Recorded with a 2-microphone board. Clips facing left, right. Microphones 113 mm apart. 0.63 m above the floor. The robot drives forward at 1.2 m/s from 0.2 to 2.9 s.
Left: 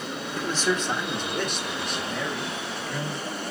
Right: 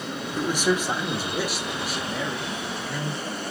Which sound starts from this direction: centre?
A man speaking, at 0.4 s.